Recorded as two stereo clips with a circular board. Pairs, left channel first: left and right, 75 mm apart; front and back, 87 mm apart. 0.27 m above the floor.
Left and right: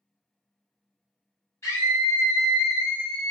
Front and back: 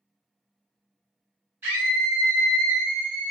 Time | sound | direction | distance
1.6 | a scream | 120° left | 1.7 m